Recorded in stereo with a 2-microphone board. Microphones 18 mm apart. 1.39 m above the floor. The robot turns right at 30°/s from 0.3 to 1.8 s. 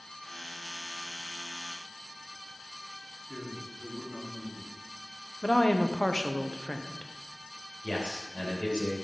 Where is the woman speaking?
50° left (ahead or behind), 0.7 m.